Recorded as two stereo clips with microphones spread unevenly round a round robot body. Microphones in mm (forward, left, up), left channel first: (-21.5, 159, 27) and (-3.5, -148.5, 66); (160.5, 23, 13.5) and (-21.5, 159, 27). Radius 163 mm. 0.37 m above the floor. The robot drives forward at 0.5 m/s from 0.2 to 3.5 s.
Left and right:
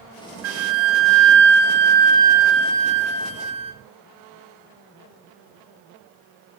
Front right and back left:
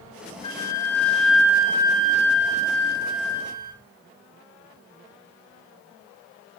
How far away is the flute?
About 0.9 m.